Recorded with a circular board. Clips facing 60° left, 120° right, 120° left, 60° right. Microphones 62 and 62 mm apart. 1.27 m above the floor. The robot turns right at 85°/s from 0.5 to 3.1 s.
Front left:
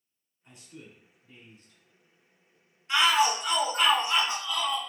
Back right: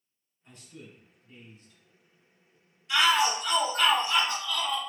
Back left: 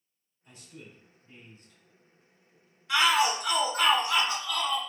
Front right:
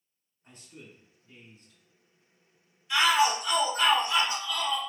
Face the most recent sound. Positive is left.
turn(degrees=135)